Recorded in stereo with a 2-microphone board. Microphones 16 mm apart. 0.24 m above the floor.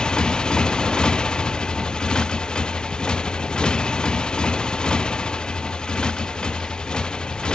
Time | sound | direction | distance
0.0 | a motorcycle | 65° left (ahead or behind) | ?